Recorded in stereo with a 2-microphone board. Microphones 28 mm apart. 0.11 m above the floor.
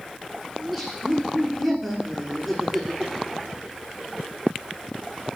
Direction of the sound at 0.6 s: Centre (ahead or behind).